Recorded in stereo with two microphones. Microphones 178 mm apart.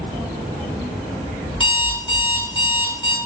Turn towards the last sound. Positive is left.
turn(degrees=30)  # may be behind; listen again after turning